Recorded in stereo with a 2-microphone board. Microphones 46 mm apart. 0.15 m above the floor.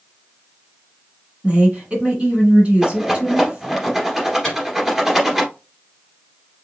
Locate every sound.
1.4 s a woman speaking: 25° right (ahead or behind), 2.0 m
2.8 s a rattle: 10° right (ahead or behind), 2.0 m
4.4 s a microwave: 10° left (ahead or behind), 1.9 m